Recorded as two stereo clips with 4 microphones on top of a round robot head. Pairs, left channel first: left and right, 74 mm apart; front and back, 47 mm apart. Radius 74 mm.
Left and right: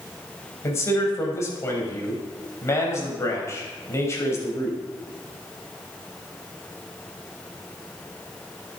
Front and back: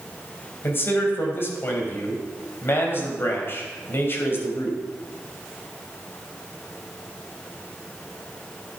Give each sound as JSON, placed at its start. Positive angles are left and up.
{"t": 0.6, "sound": "a man speaking", "azimuth_deg": 40, "distance_m": 3.5}